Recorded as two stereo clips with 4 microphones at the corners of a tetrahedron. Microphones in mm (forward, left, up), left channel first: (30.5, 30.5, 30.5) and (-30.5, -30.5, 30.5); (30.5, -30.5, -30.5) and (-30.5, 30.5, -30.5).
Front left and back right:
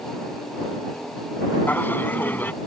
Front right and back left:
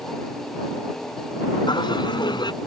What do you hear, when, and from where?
1.7 s laughter: 20° right